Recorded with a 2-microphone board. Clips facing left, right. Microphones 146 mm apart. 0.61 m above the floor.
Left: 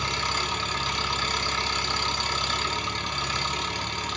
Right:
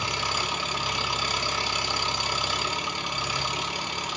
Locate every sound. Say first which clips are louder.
0.0 s an engine running: even; 10° right (ahead or behind), 0.9 m